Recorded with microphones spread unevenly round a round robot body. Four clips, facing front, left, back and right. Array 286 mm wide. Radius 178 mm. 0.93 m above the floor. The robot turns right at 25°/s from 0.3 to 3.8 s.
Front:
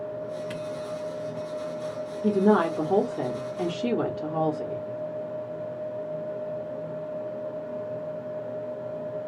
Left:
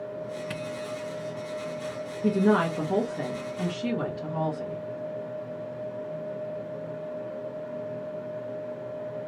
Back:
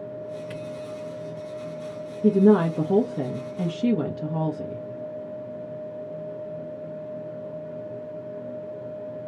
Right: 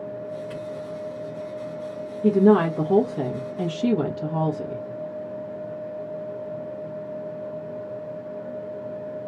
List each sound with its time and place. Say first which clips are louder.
0.5 s a camera shutter: right 2 dB, front 1 dB; 90° left, 0.7 m; by 0.6 s 95° left, 0.7 m
2.2 s a woman speaking: right 6 dB, back 3 dB; straight behind, 1.0 m; by 4.9 s 140° right, 1.0 m